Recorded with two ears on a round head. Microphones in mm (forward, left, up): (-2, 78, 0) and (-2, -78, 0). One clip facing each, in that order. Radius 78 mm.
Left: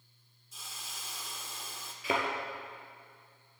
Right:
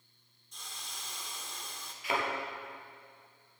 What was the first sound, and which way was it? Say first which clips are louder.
A hiss: even; 5° left (ahead or behind).